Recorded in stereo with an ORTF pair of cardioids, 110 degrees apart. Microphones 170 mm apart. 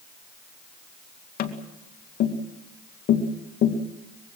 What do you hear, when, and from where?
1.4 s tapping: 60° left, 2.5 m